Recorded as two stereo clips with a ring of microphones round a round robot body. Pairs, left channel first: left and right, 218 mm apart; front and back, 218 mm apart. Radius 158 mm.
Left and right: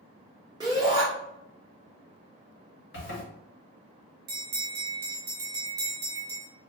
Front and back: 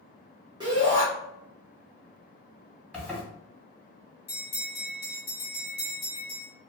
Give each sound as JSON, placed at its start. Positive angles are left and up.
{"t": 0.6, "sound": "a shout", "azimuth_deg": -140, "distance_m": 1.0}
{"t": 2.9, "sound": "a zipper", "azimuth_deg": 85, "distance_m": 1.7}
{"t": 4.3, "sound": "a bell", "azimuth_deg": -60, "distance_m": 0.7}